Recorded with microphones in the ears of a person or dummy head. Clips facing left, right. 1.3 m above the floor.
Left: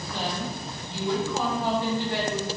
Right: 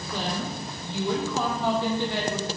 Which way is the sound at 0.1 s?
85° right.